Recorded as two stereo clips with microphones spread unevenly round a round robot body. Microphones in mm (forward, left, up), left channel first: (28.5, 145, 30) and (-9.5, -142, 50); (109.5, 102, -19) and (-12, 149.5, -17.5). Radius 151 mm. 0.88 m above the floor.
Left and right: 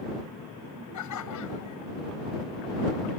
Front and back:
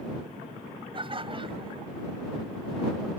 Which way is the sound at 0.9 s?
110° left.